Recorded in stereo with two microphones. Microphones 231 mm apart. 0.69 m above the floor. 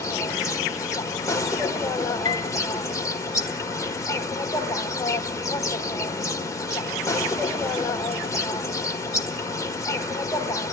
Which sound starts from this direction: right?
A piano, at 2.2 s.